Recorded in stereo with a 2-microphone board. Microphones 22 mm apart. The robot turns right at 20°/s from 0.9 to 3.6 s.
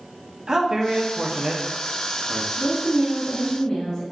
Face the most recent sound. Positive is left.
turn(degrees=35)  # may be behind; listen again after turning